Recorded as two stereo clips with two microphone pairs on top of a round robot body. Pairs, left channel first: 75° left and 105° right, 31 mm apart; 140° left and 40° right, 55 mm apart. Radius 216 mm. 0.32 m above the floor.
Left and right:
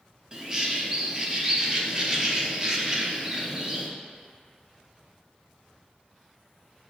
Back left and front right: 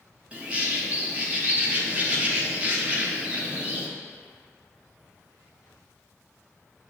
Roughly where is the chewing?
I don't hear chewing.